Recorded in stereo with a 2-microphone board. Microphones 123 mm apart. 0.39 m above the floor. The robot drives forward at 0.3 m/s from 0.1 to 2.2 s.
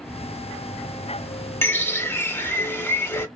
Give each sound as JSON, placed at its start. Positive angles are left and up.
{"t": 1.6, "sound": "a bird", "side_deg": 15, "distance_m": 0.7}